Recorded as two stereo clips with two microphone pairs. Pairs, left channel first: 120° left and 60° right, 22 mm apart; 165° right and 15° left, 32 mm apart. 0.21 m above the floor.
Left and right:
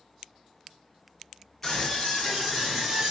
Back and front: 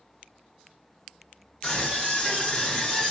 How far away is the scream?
About 1.4 m.